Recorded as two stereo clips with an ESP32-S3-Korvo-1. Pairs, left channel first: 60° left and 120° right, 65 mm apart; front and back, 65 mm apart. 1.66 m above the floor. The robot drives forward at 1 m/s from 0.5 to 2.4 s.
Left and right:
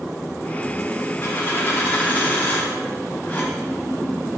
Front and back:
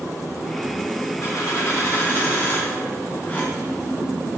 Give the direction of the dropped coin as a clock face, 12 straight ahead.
12 o'clock.